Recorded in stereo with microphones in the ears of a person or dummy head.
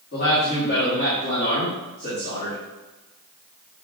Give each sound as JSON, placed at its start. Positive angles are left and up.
{"t": 0.1, "sound": "a man speaking", "side_deg": 50, "distance_m": 4.0}